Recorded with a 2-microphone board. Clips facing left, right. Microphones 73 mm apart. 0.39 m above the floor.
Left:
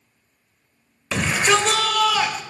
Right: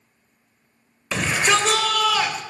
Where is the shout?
Centre (ahead or behind), 1.3 m.